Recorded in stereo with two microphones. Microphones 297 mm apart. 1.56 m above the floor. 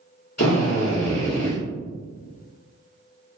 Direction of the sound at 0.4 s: 55° left (ahead or behind).